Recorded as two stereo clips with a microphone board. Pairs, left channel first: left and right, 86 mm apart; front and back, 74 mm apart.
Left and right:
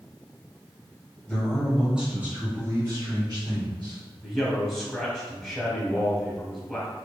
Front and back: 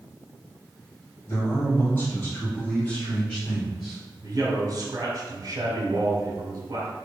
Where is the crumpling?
No crumpling in this recording.